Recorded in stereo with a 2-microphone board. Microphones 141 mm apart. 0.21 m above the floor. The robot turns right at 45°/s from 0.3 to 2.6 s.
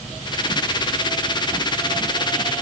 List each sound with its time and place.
Only background noise.